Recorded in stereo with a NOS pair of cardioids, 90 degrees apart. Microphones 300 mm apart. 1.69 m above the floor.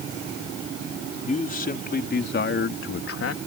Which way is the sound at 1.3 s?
25° left.